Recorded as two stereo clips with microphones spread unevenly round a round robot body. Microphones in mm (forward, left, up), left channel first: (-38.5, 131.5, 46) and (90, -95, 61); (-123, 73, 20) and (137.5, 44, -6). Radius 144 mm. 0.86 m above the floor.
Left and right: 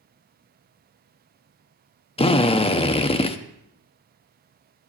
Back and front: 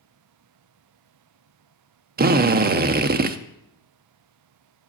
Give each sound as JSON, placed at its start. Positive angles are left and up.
{"t": 2.2, "sound": "a drill", "azimuth_deg": 50, "distance_m": 0.7}